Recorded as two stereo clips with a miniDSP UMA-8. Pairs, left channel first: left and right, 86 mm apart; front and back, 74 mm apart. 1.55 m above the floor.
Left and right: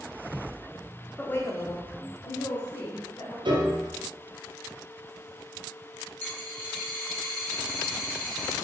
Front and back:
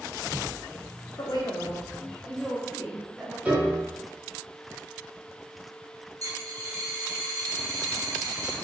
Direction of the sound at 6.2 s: 150° left.